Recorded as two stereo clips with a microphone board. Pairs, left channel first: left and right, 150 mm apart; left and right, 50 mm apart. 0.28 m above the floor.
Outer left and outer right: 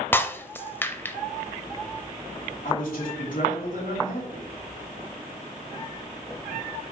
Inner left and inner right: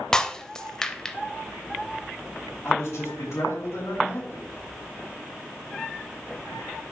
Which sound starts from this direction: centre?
Breaking glass, at 0.1 s.